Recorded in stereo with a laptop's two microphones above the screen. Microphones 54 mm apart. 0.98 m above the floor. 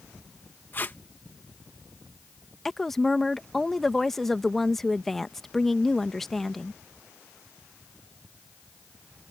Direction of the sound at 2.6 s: 5° left (ahead or behind).